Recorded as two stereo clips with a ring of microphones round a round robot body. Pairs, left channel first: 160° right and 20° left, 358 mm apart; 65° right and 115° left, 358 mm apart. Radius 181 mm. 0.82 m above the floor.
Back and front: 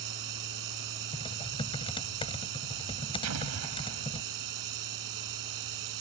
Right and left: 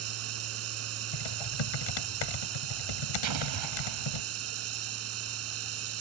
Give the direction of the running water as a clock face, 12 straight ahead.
10 o'clock.